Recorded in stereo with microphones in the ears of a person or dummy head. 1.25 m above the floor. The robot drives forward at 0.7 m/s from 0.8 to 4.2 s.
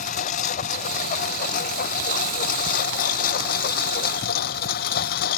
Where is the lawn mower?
40° left (ahead or behind); by 5.4 s 50° left (ahead or behind).